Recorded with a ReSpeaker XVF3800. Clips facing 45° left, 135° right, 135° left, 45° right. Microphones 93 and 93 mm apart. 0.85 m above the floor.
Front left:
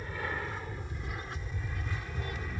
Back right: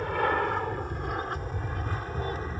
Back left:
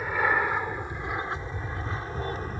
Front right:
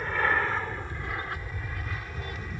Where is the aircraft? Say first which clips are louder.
Back right 11 dB, back left 1 dB; 145° right; by 2.6 s straight behind.